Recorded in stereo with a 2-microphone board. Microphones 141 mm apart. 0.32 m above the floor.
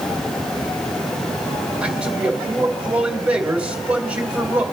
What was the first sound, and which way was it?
A man speaking, 10° right (ahead or behind).